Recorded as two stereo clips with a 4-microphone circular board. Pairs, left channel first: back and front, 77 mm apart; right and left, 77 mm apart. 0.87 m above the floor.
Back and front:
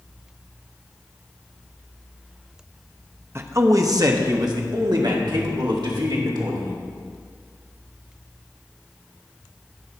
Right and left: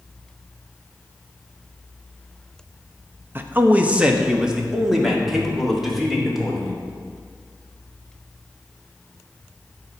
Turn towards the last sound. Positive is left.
turn(degrees=0)